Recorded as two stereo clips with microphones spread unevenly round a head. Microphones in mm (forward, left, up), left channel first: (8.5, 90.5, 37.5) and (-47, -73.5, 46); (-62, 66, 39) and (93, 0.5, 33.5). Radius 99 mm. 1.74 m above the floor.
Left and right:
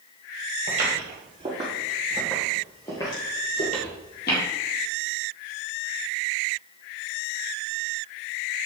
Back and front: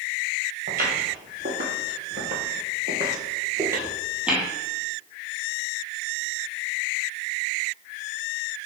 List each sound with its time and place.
0.7 s footsteps: 65° right, 2.5 m; by 4.4 s 60° left, 2.5 m